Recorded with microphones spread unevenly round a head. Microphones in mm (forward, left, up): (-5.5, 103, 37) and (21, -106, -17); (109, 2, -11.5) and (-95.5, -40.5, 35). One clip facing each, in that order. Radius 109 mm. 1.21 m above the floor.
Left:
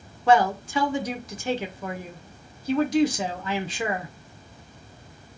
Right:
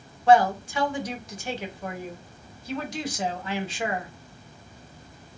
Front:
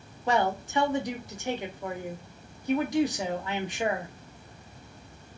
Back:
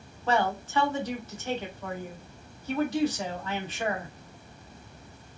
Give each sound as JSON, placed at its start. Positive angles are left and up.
{"t": 0.3, "sound": "a man speaking", "azimuth_deg": 80, "distance_m": 0.7}